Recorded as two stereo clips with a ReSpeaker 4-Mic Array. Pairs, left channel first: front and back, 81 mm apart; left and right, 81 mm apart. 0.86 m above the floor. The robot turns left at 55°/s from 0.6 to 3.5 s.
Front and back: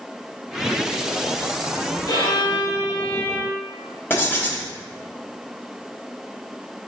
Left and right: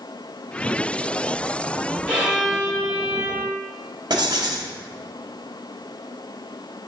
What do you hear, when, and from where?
2.1 s a violin: 20° left, 1.3 m; by 3.6 s 60° right, 1.3 m
4.1 s writing: 65° right, 0.7 m